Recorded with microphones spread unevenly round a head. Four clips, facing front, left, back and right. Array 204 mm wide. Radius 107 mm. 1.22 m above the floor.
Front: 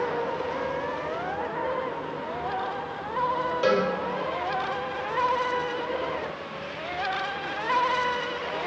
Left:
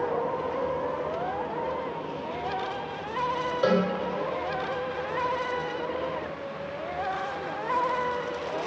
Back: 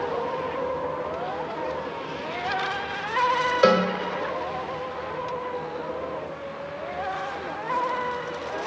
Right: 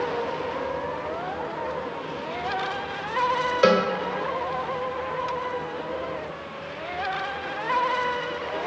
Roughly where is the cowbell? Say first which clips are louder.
Right 4 dB, back 4 dB; behind right.